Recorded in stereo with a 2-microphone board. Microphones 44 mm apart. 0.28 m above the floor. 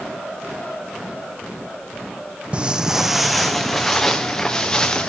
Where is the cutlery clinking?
No cutlery clinking in this recording.